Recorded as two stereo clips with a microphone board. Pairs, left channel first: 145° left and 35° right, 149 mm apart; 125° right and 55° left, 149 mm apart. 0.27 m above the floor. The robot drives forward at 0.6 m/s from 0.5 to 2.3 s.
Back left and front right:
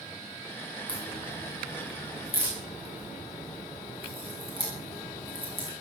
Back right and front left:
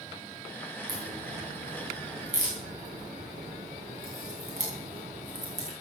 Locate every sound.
0.9 s a crack: 90° left, 9 m; by 5.7 s 95° left, 9 m